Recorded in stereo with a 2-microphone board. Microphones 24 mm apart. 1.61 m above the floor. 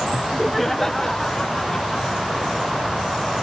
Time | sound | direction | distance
0.1 | laughter | 20° right (ahead or behind) | ?